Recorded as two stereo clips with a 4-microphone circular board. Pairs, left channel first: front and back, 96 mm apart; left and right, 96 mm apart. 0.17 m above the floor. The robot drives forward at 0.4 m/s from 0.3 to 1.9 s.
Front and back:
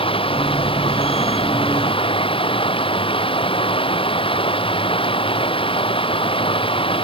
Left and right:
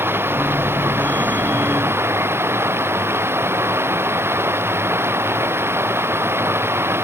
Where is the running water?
25° right.